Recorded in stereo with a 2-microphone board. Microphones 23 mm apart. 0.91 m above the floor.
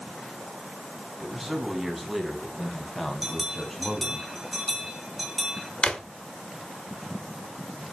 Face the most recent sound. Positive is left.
turn(degrees=45)  # may be behind; listen again after turning